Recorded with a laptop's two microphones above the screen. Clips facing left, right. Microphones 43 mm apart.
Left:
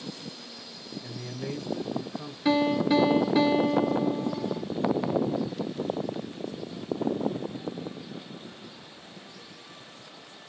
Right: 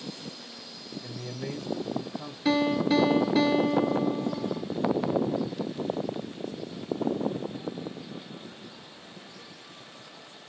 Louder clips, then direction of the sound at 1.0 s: Even; 5° left (ahead or behind).